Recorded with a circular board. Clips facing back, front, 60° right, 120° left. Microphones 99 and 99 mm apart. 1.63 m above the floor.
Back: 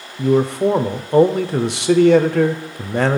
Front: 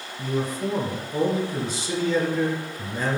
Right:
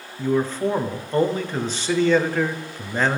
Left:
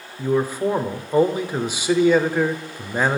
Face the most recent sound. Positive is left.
turn(degrees=-160)